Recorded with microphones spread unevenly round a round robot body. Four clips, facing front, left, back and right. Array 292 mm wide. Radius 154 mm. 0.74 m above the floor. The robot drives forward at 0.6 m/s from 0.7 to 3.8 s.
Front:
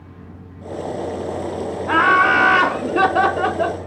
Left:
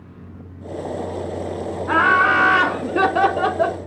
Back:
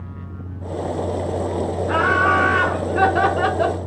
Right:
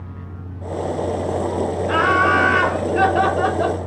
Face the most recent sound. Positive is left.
turn(degrees=105)